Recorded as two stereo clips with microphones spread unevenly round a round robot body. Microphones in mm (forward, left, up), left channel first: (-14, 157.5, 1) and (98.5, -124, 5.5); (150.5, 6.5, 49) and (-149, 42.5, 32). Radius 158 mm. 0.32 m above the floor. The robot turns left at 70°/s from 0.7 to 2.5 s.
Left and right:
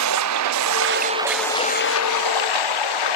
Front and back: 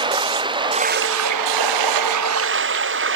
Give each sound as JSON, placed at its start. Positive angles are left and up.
{"t": 0.0, "sound": "running water", "azimuth_deg": -110}